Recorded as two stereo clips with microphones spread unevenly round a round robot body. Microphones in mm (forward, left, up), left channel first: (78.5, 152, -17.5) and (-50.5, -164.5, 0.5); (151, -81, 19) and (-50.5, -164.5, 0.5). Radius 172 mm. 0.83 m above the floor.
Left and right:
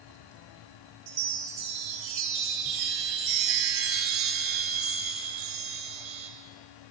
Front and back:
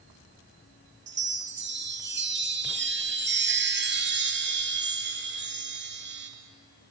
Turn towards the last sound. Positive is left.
turn(degrees=-115)